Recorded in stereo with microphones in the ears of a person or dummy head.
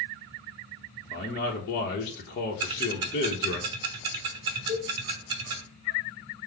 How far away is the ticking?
About 0.9 m.